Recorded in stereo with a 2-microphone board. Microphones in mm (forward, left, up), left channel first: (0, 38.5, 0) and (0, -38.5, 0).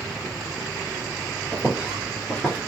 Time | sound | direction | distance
1.5 | footsteps | 20° right (ahead or behind) | 1.9 m